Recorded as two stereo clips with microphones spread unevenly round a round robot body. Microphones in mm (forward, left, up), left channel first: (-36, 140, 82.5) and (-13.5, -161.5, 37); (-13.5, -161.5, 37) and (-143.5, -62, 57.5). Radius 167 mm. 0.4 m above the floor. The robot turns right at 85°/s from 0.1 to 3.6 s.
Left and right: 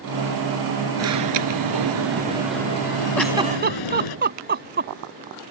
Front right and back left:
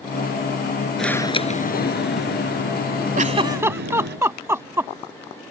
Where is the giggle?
Straight behind; by 4.9 s 145° right.